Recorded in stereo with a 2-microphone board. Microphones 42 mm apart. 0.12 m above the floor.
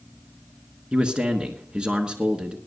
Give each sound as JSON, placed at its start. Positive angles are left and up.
{"t": 0.9, "sound": "a man speaking", "side_deg": -20, "distance_m": 1.2}